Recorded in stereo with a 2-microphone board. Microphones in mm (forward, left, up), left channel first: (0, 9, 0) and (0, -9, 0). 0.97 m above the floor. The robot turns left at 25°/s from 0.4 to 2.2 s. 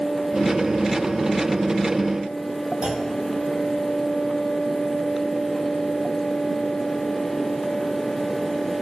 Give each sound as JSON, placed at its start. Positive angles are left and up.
{"t": 2.8, "sound": "a clunk", "side_deg": -55, "distance_m": 3.5}